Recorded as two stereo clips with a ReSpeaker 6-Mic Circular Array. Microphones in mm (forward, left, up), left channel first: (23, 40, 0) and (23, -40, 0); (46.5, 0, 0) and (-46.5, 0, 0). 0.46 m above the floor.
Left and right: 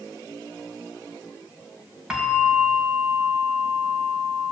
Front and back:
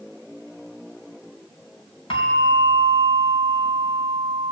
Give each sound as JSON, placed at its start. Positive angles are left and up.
{"t": 2.1, "sound": "a bell", "azimuth_deg": -10, "distance_m": 3.5}